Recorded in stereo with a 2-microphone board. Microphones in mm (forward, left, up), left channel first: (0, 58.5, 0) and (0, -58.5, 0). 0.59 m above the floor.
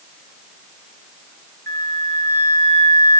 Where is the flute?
25° left (ahead or behind), 2 m.